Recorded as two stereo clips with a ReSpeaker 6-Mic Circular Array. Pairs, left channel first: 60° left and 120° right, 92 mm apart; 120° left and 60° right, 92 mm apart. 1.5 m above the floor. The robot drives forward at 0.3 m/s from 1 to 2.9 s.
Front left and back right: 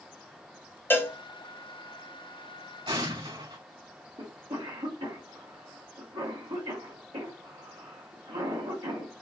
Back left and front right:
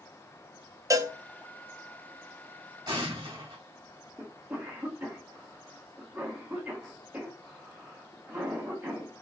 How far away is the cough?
About 1.4 m.